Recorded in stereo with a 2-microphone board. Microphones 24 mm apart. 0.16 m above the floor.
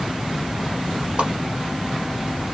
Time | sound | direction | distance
1.2 | a whoosh | 50° right (ahead or behind) | 1.4 m